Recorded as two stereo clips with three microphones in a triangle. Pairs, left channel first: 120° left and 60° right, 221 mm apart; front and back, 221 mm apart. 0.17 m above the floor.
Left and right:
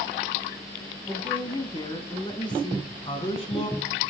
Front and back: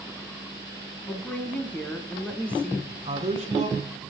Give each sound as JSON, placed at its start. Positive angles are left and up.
{"t": 1.1, "sound": "a woman speaking", "azimuth_deg": 75, "distance_m": 1.2}
{"t": 2.9, "sound": "a man speaking", "azimuth_deg": 155, "distance_m": 1.2}